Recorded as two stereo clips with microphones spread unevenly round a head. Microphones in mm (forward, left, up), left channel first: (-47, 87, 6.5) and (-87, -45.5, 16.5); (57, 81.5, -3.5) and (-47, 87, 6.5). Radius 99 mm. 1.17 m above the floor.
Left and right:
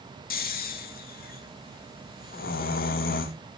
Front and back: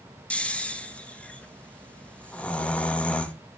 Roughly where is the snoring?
Left.